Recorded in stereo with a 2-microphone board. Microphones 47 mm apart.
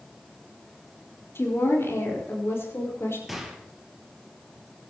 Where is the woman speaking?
60° left (ahead or behind), 4.5 m; by 3.2 s 65° left (ahead or behind), 5.5 m.